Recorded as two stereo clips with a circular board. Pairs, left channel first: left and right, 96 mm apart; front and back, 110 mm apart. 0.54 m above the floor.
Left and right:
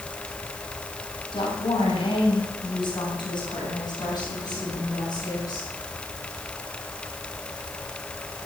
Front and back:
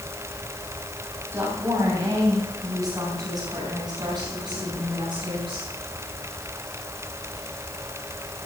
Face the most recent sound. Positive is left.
turn(degrees=135)